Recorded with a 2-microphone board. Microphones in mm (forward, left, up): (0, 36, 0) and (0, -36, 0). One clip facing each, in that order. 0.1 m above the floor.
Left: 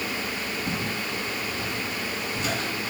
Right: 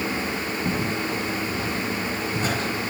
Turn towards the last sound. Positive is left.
turn(degrees=-35)  # may be behind; listen again after turning